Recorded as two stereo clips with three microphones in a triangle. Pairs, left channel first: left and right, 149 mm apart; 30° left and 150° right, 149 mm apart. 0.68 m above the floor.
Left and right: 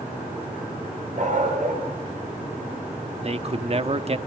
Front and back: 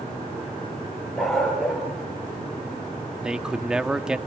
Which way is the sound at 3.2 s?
65° right.